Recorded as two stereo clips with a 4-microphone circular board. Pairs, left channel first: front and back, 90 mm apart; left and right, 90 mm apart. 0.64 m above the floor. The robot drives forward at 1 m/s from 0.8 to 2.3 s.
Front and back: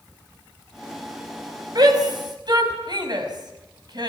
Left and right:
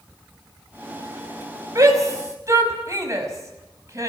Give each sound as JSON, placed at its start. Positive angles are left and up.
{"t": 1.8, "sound": "a shout", "azimuth_deg": -140, "distance_m": 5.0}